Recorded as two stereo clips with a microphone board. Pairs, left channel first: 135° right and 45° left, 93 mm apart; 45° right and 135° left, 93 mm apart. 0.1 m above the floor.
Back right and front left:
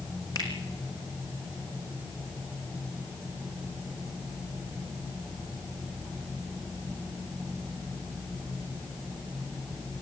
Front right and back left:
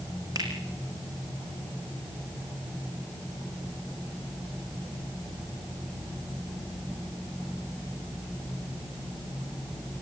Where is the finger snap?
Straight behind, 4.5 m.